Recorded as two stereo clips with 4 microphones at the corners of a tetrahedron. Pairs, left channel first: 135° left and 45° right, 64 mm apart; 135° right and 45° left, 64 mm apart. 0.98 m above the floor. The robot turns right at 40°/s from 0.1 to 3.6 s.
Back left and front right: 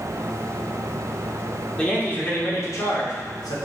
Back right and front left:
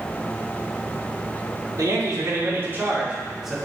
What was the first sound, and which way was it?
A man speaking, 60° left.